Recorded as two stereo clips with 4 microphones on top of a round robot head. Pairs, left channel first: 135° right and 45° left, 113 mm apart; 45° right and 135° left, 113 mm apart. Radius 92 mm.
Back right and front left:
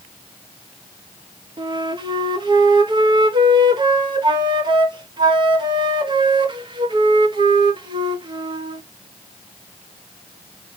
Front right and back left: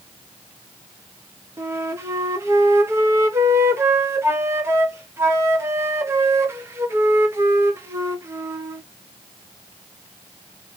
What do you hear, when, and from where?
1.6 s a flute: 75° left, 0.8 m